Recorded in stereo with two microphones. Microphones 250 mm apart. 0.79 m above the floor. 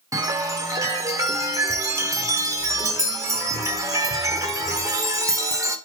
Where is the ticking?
I don't hear ticking.